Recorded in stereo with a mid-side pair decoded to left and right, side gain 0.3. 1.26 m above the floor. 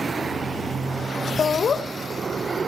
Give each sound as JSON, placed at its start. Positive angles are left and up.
{"t": 1.4, "sound": "laughter", "azimuth_deg": 65, "distance_m": 1.4}